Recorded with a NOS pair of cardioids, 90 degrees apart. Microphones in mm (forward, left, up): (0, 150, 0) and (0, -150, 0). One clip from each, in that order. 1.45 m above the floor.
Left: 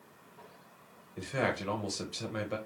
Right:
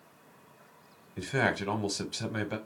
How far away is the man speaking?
About 1.0 m.